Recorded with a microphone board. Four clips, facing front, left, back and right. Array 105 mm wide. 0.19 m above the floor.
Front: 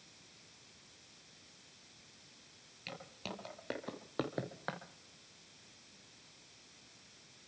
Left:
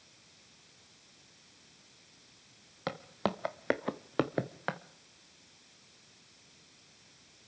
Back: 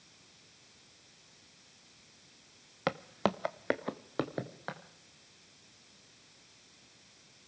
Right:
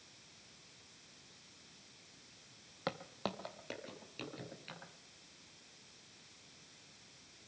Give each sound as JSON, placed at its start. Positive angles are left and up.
{"t": 2.9, "sound": "footsteps", "azimuth_deg": 175, "distance_m": 1.4}